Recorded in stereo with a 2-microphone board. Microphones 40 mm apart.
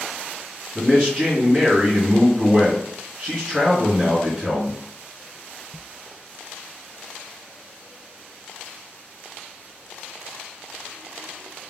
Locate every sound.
0.8 s a man speaking: 25° right (ahead or behind), 1.7 m